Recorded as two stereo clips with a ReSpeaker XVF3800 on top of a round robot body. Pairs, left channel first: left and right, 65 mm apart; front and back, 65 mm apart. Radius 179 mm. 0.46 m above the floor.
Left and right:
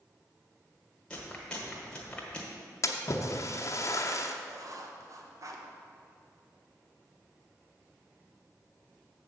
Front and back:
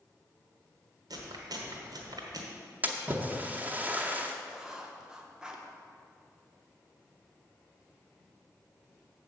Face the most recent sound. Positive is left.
turn(degrees=-100)